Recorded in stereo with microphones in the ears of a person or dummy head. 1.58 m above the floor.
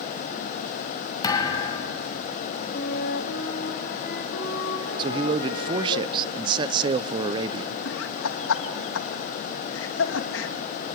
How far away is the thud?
About 3 m.